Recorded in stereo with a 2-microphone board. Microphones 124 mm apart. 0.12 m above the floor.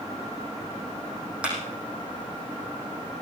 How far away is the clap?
About 5.5 m.